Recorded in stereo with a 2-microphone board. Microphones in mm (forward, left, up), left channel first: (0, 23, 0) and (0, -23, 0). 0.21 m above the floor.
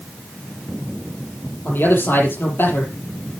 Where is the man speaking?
55° left (ahead or behind), 7 m.